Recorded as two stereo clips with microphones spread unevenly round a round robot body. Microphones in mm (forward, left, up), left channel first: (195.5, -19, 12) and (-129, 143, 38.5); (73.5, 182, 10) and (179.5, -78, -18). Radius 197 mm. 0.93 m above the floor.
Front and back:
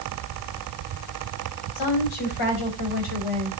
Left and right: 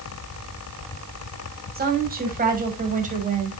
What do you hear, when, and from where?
1.8 s a woman speaking: 10° right, 6 m; by 3.5 s 5° right, 5 m